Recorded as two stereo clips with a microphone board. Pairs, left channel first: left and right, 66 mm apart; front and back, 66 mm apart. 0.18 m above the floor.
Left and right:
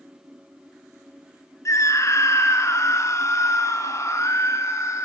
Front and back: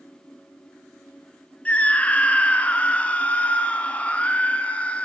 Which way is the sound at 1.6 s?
65° left.